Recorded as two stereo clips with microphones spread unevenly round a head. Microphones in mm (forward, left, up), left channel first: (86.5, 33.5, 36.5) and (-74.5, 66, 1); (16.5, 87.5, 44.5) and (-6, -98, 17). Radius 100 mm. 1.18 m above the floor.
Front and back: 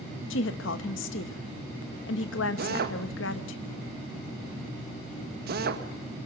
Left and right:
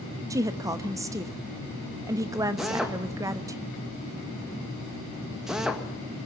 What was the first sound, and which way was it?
A woman speaking, 20° right.